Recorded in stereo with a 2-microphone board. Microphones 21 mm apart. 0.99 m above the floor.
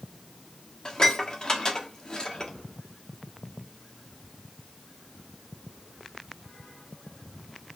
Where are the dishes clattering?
40° left (ahead or behind), 1.5 m.